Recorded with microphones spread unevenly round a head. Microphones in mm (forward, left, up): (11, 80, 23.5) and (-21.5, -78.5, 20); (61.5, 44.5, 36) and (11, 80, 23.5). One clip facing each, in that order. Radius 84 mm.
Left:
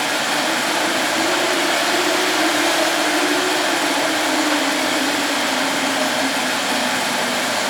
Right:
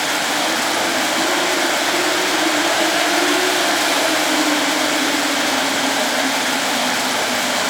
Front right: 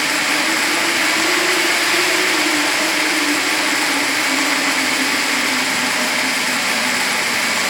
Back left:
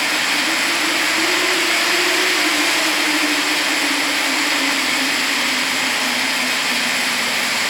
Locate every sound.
0.0 s running water: 40° right, 8 m